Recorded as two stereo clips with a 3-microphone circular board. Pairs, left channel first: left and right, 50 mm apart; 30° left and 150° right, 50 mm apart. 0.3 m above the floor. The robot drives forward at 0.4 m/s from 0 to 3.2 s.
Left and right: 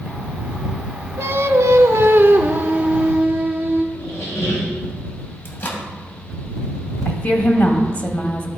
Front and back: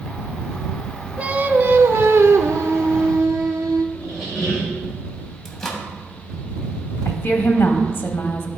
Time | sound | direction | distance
1.2 | singing | 85° right | 0.5 m
4.0 | a squeak | 110° left | 3 m
5.5 | a microwave | 115° left | 1.2 m
7.0 | a woman speaking | 55° left | 1.4 m